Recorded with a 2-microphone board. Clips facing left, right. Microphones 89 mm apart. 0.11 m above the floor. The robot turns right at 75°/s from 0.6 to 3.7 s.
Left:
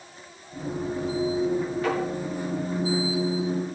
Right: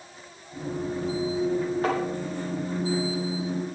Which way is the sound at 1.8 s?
40° right (ahead or behind).